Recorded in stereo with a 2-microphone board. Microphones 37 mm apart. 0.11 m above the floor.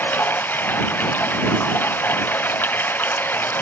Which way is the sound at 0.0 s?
55° left (ahead or behind).